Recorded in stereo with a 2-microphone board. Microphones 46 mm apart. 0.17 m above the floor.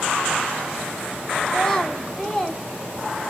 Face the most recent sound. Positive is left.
turn(degrees=15)  # may be behind; listen again after turning